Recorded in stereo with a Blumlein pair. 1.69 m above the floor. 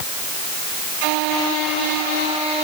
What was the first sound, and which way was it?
Only background noise.